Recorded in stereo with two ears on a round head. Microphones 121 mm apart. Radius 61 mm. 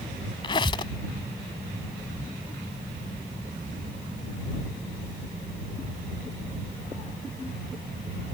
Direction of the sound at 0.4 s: 40° left (ahead or behind).